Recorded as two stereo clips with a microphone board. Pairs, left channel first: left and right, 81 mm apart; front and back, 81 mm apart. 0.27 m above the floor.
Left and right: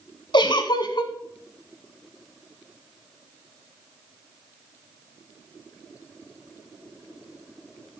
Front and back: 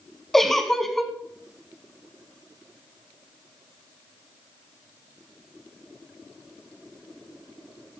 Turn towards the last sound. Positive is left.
turn(degrees=85)